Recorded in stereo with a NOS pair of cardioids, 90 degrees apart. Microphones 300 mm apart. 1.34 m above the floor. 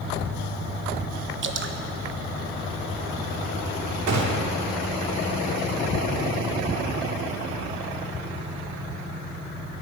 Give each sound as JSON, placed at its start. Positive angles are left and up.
{"t": 1.4, "sound": "dripping", "azimuth_deg": -40, "distance_m": 1.1}
{"t": 4.1, "sound": "a gunshot", "azimuth_deg": -65, "distance_m": 2.0}